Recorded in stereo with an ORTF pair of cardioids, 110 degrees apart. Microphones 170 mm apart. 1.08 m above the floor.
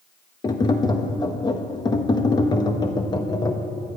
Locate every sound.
0.4 s tapping: 25° left, 1.1 m